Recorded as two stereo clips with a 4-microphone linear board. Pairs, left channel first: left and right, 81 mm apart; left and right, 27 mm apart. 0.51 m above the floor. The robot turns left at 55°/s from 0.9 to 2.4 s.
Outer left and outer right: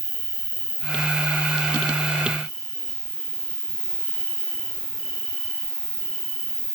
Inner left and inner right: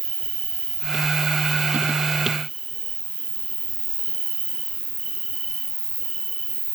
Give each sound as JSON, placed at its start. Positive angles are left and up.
{"t": 0.0, "sound": "an insect", "azimuth_deg": 75, "distance_m": 1.9}